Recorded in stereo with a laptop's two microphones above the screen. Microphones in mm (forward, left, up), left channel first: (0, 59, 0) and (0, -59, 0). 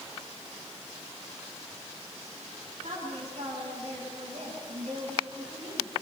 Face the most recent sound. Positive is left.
turn(degrees=-75)  # may be behind; listen again after turning